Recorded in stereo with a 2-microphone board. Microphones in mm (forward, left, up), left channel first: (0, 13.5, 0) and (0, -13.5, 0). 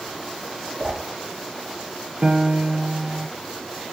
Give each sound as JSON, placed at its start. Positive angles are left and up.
{"t": 0.8, "sound": "a whoosh", "side_deg": -35, "distance_m": 2.0}
{"t": 2.2, "sound": "a piano", "side_deg": -45, "distance_m": 1.4}